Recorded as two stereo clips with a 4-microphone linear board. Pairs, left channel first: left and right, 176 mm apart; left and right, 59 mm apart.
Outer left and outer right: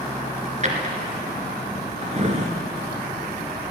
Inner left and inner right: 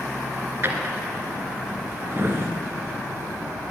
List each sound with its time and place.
0.6 s a drawer: 40° right (ahead or behind), 1.8 m